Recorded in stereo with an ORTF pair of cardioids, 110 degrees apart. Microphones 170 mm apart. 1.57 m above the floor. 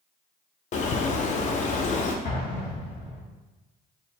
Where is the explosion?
50° left, 1.2 m.